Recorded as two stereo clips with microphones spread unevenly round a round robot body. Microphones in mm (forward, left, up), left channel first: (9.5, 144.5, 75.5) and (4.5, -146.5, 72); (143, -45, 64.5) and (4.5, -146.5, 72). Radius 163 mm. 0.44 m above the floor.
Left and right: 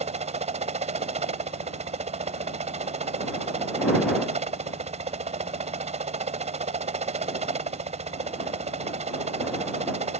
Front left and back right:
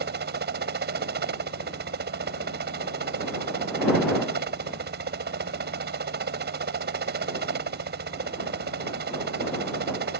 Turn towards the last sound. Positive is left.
turn(degrees=-155)